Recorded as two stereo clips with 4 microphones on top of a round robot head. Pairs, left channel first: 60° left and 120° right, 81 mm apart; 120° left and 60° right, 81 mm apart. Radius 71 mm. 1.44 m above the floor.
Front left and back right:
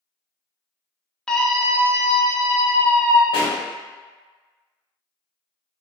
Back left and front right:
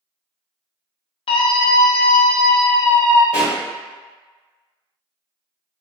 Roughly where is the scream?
Behind left.